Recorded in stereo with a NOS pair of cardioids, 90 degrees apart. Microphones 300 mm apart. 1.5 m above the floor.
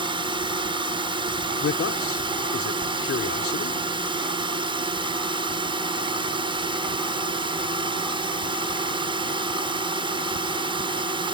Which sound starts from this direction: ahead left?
A man speaking, at 1.6 s.